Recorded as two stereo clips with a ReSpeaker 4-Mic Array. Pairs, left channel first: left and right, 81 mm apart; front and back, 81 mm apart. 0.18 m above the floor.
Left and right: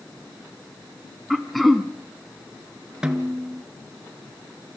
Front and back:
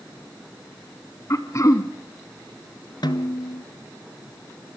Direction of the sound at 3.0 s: 10° right.